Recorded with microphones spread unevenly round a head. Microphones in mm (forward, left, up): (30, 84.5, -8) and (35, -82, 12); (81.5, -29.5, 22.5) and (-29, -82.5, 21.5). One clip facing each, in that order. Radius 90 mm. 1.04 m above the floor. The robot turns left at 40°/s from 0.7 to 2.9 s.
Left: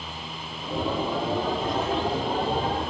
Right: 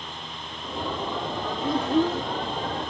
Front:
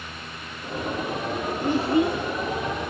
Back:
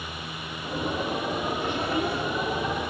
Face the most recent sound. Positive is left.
turn(degrees=-75)